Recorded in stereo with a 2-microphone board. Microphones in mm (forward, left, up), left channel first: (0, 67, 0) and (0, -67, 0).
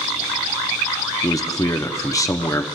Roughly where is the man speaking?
Left.